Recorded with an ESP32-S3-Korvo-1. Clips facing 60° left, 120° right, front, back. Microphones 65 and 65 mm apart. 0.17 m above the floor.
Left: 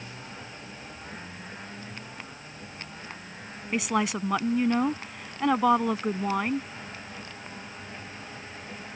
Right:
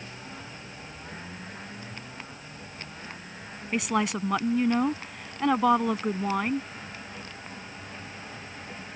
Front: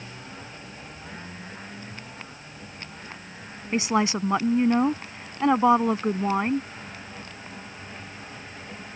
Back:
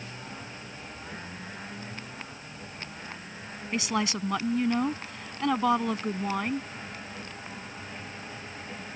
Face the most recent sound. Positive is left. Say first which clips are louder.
# even, front 6 dB
turn(degrees=-30)